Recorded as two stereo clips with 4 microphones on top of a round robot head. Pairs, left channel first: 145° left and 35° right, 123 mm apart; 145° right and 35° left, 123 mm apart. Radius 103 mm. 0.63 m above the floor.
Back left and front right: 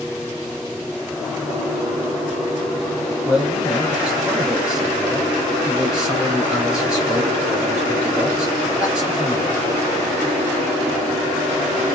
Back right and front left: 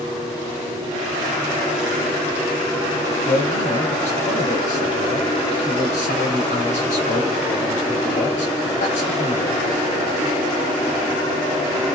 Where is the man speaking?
120° right, 4 m.